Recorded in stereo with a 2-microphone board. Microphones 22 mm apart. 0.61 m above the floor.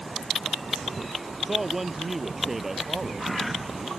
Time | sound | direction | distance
1.4 | a man speaking | 15° right (ahead or behind) | ?